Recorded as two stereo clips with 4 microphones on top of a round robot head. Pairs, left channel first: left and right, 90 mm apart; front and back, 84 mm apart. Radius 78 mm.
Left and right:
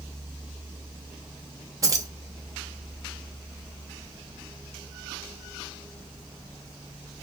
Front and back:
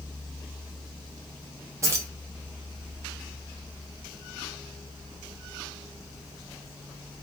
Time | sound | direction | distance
1.8 | keys jangling | 135° right | 0.8 m